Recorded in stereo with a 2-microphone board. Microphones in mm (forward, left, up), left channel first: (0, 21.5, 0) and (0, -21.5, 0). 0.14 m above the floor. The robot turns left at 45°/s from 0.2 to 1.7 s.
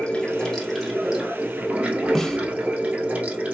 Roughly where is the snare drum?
Centre.